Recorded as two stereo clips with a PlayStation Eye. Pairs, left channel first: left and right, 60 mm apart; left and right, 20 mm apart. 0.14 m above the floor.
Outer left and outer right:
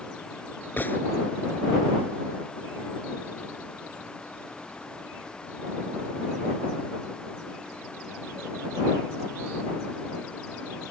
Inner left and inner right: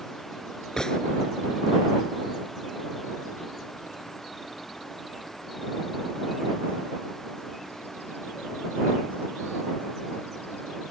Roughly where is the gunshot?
Left.